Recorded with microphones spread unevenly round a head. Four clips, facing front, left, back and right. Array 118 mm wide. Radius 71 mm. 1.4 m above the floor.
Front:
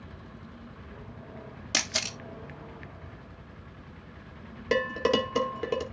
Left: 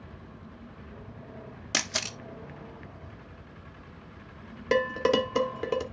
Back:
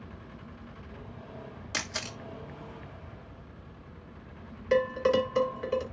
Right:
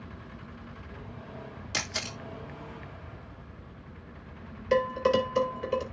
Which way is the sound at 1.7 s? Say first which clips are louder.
Left 3 dB, front 3 dB; 65° left.